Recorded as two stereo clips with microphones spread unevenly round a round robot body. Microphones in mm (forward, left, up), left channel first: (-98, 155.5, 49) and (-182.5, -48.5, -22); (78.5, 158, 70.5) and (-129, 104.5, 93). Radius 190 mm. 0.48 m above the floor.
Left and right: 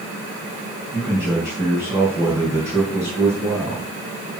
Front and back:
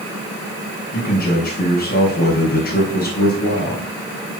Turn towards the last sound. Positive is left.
turn(degrees=-35)